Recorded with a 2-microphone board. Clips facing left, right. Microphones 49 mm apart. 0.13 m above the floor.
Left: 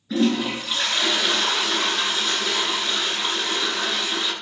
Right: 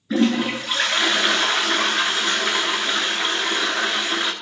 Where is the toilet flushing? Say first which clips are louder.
Right 2 dB; 45° right (ahead or behind), 1.2 m.